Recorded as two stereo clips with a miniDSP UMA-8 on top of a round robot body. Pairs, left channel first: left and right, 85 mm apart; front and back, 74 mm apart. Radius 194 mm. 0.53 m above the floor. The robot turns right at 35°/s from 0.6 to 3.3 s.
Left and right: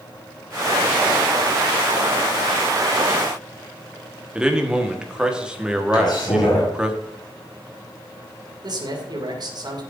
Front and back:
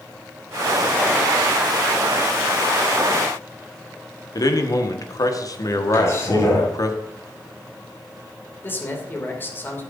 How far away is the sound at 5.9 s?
About 5 m.